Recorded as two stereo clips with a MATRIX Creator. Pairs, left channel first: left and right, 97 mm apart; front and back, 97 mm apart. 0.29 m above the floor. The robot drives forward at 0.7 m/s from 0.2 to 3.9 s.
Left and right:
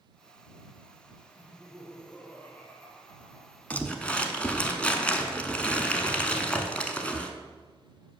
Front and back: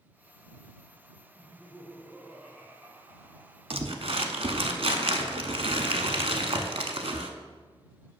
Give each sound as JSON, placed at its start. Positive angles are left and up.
{"t": 1.4, "sound": "laughter", "azimuth_deg": 30, "distance_m": 1.4}
{"t": 3.7, "sound": "crumpling", "azimuth_deg": 165, "distance_m": 0.5}